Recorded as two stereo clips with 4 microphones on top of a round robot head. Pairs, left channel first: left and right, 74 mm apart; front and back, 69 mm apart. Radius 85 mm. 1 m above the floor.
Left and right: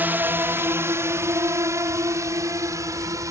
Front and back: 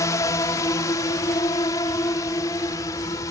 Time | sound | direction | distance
0.0 | a drone | 30° right | ?